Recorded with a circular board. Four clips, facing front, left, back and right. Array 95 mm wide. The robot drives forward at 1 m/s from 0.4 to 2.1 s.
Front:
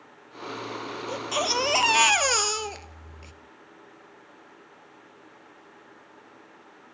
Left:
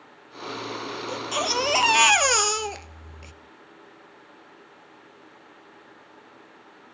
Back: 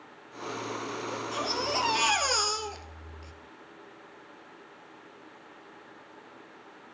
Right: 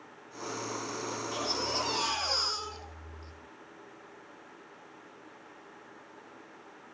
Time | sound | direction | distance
1.1 | a baby crying | 35° left | 1.7 m